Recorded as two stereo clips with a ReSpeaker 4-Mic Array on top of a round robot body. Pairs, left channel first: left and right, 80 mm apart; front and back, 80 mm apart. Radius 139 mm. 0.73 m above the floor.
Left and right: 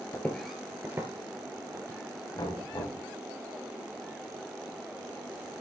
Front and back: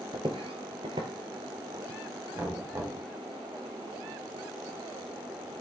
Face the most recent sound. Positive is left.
turn(degrees=125)